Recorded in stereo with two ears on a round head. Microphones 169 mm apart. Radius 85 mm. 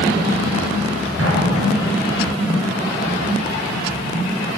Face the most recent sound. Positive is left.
turn(degrees=-75)  # may be behind; listen again after turning